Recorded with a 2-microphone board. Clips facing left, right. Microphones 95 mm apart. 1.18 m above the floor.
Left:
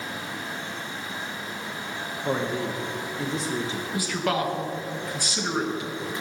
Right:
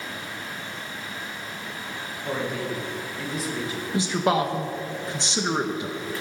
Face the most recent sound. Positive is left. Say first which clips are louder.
# right 4 dB
turn(degrees=-25)  # may be behind; listen again after turning